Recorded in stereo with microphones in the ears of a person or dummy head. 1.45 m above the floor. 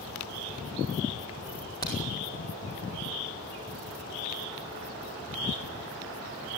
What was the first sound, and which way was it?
A crack, 25° left (ahead or behind).